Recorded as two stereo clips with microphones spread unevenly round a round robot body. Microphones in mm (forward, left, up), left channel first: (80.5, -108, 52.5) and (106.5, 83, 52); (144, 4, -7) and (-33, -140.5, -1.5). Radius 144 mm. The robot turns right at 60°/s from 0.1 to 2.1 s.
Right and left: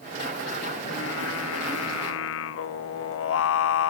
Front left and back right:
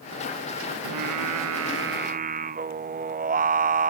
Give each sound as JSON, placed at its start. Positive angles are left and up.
{"t": 0.8, "sound": "singing", "azimuth_deg": -155, "distance_m": 0.6}